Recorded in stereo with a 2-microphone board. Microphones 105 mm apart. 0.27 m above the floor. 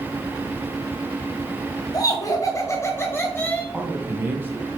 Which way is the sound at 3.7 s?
20° right (ahead or behind).